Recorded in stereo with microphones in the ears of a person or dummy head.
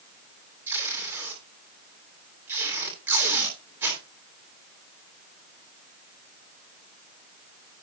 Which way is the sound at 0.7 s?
15° right (ahead or behind).